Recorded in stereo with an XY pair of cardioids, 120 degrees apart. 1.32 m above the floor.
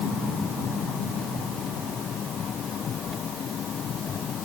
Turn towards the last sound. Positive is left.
No sound to turn to.